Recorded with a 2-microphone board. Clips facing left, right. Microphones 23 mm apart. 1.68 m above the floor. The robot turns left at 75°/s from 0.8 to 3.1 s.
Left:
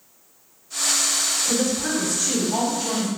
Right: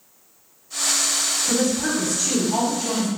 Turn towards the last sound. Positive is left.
turn(degrees=165)